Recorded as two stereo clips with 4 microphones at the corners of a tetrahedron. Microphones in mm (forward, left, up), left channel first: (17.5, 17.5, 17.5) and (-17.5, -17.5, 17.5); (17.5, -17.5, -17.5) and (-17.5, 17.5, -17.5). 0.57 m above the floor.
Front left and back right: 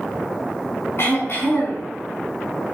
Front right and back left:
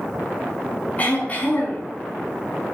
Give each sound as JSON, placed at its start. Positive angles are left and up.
{"t": 1.0, "sound": "throat clearing", "azimuth_deg": 10, "distance_m": 7.0}